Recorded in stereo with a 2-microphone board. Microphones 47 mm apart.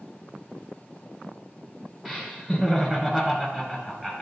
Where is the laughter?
5° left (ahead or behind), 1.1 m.